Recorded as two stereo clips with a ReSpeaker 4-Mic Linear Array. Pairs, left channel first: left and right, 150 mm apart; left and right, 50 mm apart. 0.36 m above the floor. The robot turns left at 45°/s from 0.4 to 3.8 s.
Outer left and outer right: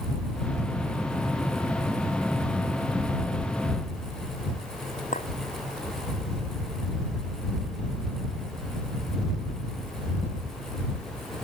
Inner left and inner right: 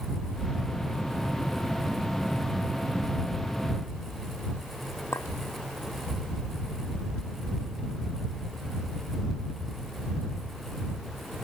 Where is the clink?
60° left (ahead or behind).